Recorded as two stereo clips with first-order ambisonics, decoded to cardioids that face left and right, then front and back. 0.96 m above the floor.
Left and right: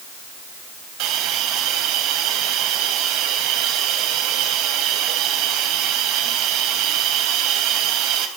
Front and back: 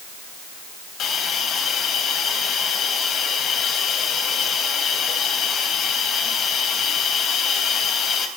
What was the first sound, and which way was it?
A hiss, 60° right.